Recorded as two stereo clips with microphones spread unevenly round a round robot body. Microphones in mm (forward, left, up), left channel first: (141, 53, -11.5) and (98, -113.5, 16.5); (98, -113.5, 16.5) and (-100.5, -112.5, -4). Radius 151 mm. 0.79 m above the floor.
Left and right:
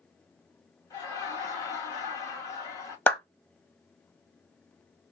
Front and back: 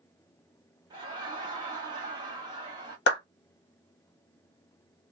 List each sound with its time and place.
0.9 s laughter: 125° left, 0.9 m
3.1 s a clap: 5° left, 1.0 m